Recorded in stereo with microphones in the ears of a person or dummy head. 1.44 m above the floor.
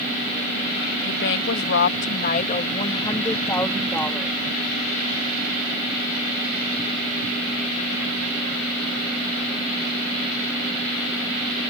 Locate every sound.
1.1 s a woman speaking: 70° left (ahead or behind); by 4.4 s centre (ahead or behind)